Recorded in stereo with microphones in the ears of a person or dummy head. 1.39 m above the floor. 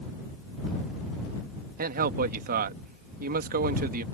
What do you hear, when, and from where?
1.8 s a man speaking: 45° right (ahead or behind)